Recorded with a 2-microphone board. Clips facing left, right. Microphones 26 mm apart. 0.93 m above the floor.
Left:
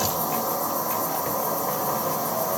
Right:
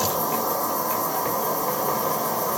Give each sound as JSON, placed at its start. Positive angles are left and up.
{"t": 0.0, "sound": "an insect", "side_deg": -80, "distance_m": 1.3}